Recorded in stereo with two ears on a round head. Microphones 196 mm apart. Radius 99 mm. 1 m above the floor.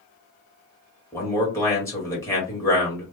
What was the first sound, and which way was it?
A man speaking, 15° left (ahead or behind).